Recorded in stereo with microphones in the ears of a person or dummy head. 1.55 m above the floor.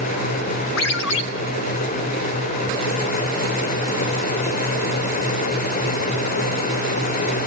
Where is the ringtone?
65° left (ahead or behind), 1.1 m.